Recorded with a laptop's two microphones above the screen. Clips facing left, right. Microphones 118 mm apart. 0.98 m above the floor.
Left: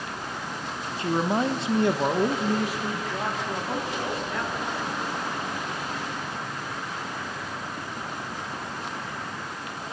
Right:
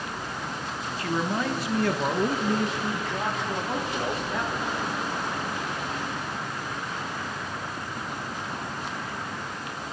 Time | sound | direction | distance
1.0 | a man speaking | 25° left (ahead or behind) | 1.1 m